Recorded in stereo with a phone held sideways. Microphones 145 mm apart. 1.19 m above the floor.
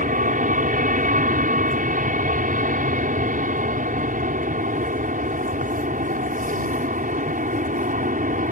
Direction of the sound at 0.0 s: 60° right (ahead or behind).